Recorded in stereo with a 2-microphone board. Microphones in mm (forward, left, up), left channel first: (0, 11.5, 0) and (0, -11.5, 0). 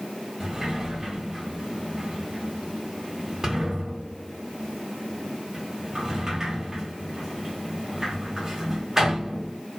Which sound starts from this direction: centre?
A sliding door, at 0.4 s.